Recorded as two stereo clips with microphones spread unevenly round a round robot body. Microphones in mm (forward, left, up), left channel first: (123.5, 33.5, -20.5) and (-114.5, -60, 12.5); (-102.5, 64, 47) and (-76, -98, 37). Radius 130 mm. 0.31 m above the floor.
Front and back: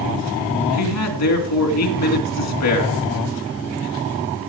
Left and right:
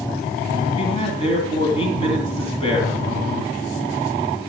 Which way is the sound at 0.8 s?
35° left.